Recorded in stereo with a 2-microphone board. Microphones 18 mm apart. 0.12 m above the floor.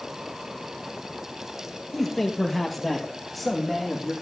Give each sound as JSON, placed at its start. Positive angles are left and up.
{"t": 1.9, "sound": "a man speaking", "side_deg": 10, "distance_m": 2.5}